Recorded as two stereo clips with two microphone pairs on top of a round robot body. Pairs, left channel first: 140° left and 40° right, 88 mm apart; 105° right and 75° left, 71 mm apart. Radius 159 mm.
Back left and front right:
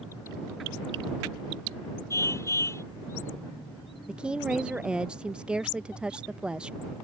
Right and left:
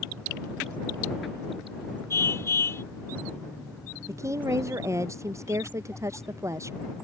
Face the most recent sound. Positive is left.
turn(degrees=35)